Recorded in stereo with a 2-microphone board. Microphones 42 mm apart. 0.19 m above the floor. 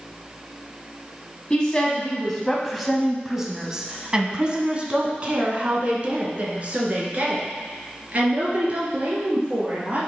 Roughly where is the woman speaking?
Left.